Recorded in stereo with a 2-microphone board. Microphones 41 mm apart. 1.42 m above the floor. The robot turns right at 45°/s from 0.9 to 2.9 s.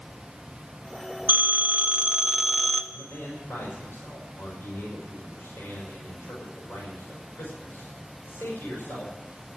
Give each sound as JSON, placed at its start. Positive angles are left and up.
{"t": 1.3, "sound": "a phone ringing", "azimuth_deg": -55, "distance_m": 1.3}
{"t": 2.9, "sound": "a man speaking", "side_deg": 90, "distance_m": 5.5}